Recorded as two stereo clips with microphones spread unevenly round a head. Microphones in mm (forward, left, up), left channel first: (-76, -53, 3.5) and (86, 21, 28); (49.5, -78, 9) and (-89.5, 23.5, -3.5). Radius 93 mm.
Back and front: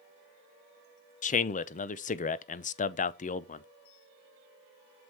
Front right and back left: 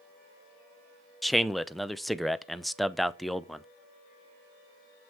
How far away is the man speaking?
About 0.7 m.